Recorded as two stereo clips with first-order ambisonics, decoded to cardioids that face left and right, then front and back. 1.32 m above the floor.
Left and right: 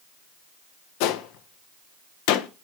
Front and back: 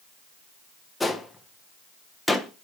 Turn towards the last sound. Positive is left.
turn(degrees=85)